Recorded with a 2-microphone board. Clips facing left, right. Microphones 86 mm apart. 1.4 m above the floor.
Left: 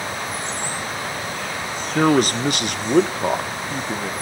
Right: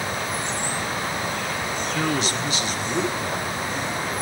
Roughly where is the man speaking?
Left.